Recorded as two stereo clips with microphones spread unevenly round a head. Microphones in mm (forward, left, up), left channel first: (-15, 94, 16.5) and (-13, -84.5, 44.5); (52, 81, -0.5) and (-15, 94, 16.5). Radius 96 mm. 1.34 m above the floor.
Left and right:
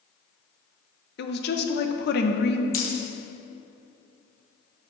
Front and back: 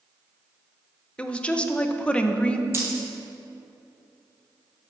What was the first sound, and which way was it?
A woman speaking, 60° left.